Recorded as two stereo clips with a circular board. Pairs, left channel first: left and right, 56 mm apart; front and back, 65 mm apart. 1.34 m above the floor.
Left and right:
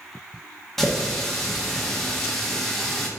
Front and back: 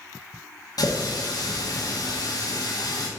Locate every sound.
0.8 s a running tap: 5° left, 1.3 m